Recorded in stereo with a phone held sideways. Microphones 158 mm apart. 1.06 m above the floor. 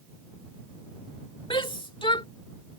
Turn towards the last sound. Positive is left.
turn(degrees=35)  # may be behind; listen again after turning